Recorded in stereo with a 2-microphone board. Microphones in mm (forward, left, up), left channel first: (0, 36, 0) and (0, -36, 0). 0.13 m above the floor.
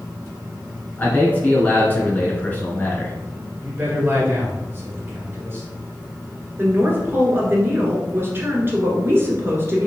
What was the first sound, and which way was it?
A man speaking, 25° left (ahead or behind).